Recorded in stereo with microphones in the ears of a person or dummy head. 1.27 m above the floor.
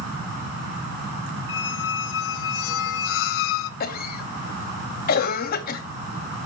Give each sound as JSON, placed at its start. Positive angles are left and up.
{"t": 1.5, "sound": "a squeak", "side_deg": 70, "distance_m": 0.5}
{"t": 3.8, "sound": "a cough", "side_deg": 50, "distance_m": 0.8}